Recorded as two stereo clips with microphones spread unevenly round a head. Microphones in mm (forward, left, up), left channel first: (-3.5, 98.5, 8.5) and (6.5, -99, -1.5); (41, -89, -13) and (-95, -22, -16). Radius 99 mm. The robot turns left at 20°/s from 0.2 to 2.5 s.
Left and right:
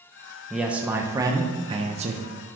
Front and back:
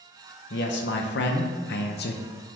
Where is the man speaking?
Straight ahead, 0.7 m; by 2.2 s 35° right, 0.7 m.